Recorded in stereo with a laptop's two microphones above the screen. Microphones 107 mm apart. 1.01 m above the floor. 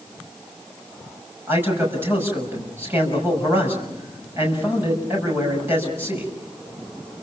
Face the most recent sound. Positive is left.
turn(degrees=-20)  # may be behind; listen again after turning